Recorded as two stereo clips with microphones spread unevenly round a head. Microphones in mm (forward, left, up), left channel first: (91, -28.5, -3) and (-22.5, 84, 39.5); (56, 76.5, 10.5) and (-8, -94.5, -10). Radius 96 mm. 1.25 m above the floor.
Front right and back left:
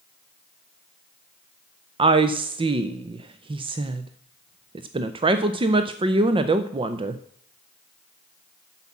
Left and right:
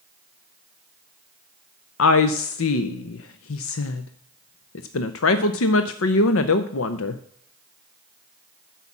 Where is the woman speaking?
80° left, 0.5 m.